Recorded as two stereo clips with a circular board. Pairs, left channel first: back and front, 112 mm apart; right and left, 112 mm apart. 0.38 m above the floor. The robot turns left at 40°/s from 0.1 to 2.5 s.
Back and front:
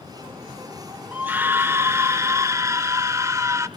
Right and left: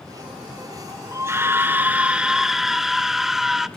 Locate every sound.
1.1 s a scream: 60° left, 0.9 m; by 3.7 s 5° left, 0.9 m